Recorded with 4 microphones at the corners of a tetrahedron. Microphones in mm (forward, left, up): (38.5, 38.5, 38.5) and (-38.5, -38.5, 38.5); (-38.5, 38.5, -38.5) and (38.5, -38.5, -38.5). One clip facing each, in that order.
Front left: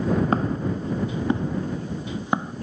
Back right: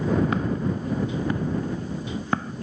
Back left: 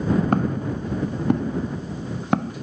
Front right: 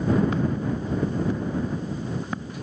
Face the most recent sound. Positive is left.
turn(degrees=120)